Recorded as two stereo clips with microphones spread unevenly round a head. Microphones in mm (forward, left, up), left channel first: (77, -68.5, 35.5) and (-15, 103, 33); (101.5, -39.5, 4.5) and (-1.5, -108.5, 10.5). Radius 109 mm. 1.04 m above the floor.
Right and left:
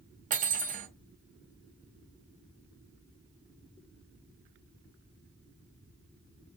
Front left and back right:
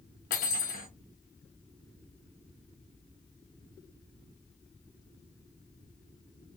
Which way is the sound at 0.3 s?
65° left.